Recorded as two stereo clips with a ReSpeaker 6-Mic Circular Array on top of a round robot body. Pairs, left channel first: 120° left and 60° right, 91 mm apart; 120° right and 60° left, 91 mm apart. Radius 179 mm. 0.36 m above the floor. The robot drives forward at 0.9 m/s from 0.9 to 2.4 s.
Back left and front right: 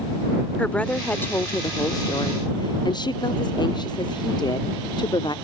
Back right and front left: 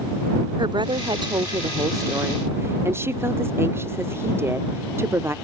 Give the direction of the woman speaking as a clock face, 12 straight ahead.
11 o'clock.